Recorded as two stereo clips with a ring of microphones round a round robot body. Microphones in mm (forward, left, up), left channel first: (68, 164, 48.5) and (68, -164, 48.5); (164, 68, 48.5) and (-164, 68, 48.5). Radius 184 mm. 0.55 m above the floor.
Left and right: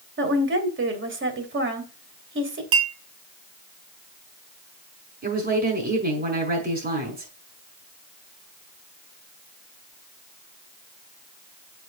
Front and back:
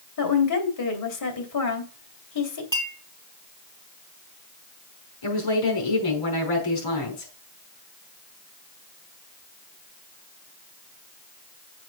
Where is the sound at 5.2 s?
25° right, 5.5 m.